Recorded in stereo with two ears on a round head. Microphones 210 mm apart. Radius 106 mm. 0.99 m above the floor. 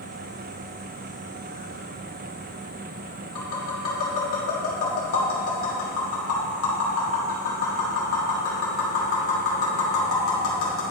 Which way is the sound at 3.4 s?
65° left (ahead or behind).